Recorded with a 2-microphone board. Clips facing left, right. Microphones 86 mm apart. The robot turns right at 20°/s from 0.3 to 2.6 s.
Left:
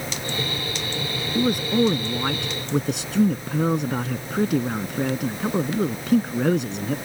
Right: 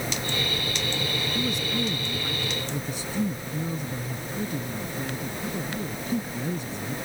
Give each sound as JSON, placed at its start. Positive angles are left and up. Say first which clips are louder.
{"t": 1.4, "sound": "a man speaking", "louder": "left 11 dB", "side_deg": 50}